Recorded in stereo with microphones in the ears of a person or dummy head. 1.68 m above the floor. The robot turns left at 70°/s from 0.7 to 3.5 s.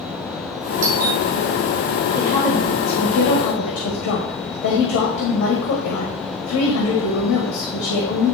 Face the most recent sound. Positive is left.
turn(degrees=125)